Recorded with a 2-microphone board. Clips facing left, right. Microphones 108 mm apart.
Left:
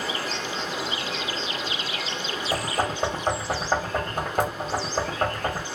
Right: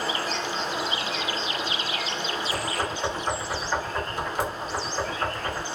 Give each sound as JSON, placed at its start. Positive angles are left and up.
{"t": 0.0, "sound": "running water", "side_deg": -35, "distance_m": 0.9}
{"t": 2.5, "sound": "knocking", "side_deg": 50, "distance_m": 1.1}